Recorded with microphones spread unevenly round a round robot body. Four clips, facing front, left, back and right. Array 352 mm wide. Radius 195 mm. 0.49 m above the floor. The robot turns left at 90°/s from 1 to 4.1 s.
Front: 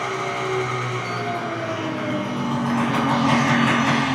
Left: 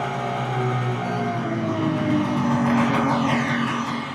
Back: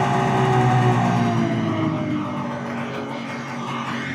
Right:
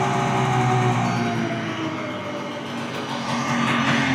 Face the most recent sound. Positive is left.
turn(degrees=-60)